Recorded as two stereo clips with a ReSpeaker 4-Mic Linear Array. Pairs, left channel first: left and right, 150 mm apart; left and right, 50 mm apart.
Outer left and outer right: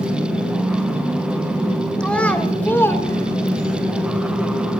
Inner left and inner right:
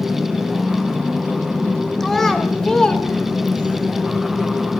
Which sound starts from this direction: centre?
A child speaking, at 2.0 s.